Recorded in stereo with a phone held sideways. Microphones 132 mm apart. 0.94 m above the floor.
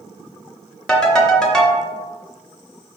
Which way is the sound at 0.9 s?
5° left (ahead or behind).